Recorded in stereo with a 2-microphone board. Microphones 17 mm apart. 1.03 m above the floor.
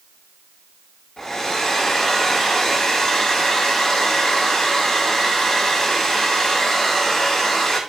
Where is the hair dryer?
25° left (ahead or behind), 7 m.